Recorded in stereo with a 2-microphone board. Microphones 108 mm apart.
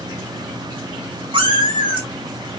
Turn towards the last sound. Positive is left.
turn(degrees=-50)  # may be behind; listen again after turning